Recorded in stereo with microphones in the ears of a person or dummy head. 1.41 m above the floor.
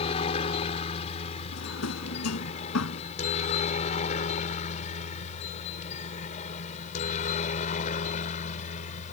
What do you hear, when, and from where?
0.0 s a helicopter: 30° left (ahead or behind); by 9.1 s 40° left (ahead or behind)
1.5 s a drawer: 85° left